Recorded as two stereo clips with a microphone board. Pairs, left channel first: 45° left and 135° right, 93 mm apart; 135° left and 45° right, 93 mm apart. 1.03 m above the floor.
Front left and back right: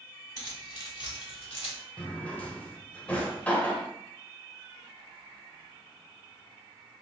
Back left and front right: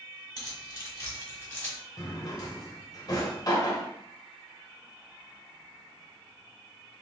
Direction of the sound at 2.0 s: 110° left.